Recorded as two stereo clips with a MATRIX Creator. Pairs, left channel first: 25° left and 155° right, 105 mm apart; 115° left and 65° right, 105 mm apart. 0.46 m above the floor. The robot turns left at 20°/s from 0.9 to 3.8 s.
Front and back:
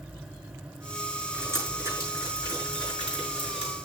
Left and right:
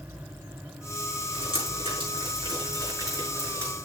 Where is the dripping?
90° right, 6 m; by 3.8 s 140° right, 6 m.